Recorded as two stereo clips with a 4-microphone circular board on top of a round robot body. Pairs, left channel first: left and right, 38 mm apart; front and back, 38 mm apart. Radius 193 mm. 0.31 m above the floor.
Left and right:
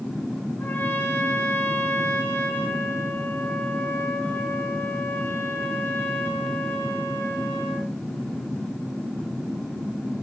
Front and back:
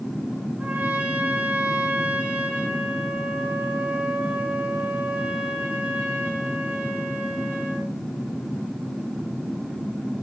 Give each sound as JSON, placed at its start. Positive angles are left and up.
{"t": 0.6, "sound": "a trumpet", "azimuth_deg": 125, "distance_m": 3.5}